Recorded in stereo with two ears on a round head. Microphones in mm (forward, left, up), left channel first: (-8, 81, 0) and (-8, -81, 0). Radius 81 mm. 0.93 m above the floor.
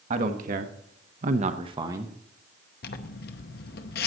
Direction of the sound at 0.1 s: 45° right (ahead or behind).